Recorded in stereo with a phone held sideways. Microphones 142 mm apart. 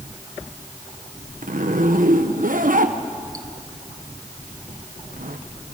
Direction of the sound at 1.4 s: 80° right.